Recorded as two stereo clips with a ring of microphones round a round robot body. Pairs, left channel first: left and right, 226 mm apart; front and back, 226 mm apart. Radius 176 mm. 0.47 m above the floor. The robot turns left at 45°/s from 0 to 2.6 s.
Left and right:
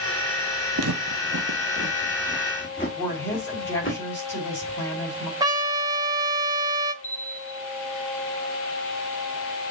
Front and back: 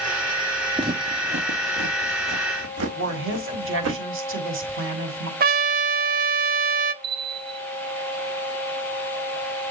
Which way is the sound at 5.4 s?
155° right.